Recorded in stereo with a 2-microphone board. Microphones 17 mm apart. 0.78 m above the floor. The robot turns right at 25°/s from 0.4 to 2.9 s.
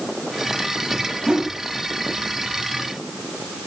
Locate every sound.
1.3 s a whoosh: 55° right (ahead or behind), 4.5 m; by 1.5 s 60° right (ahead or behind), 4.5 m